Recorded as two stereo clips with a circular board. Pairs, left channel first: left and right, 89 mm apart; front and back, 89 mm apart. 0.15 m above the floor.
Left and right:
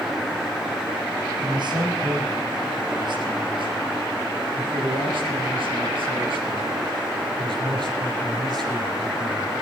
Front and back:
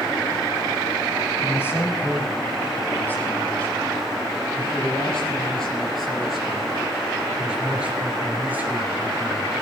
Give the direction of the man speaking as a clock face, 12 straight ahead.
2 o'clock.